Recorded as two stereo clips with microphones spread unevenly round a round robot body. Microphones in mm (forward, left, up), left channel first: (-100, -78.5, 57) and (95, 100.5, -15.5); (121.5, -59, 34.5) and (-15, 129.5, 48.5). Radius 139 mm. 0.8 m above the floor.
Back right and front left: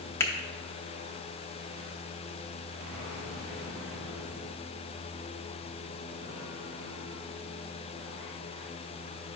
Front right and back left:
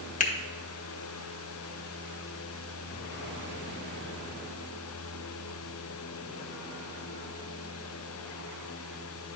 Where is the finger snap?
40° right, 1.0 m.